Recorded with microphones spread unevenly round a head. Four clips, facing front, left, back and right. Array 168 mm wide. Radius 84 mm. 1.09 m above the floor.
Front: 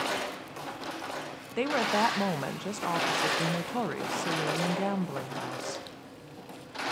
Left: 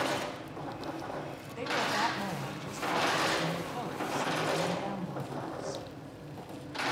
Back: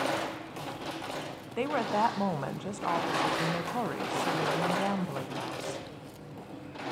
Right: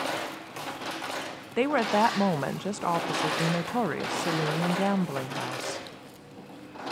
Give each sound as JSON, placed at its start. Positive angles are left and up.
{"t": 1.6, "sound": "a woman speaking", "azimuth_deg": -60, "distance_m": 0.6}